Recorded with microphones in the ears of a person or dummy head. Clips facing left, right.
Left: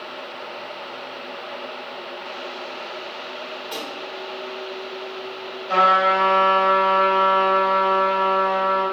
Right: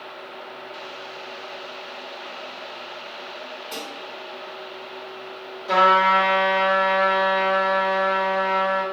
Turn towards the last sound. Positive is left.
turn(degrees=-80)